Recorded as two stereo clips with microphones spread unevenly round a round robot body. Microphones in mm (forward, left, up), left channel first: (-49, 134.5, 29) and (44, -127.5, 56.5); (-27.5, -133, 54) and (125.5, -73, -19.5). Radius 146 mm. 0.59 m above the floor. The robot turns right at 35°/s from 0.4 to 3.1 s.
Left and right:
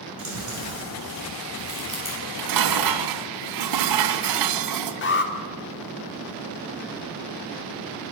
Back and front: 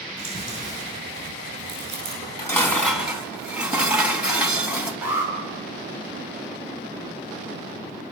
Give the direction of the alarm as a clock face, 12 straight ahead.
9 o'clock.